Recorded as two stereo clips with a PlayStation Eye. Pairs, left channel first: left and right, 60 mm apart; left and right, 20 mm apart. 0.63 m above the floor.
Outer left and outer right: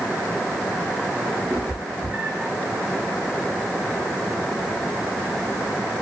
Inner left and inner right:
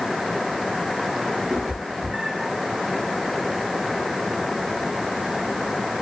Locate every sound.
1.5 s a cat meowing: 30° right (ahead or behind), 4.5 m